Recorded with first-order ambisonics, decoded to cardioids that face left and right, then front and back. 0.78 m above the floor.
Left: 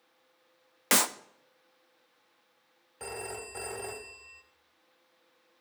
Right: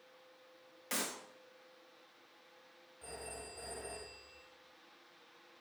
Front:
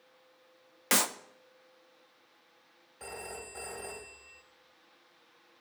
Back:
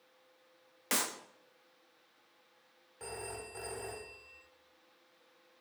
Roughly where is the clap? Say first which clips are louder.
Left 13 dB, front 6 dB; ahead left.